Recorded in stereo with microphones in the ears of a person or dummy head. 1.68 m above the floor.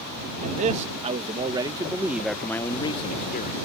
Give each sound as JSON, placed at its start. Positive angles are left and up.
{"t": 0.4, "sound": "a man speaking", "side_deg": -40}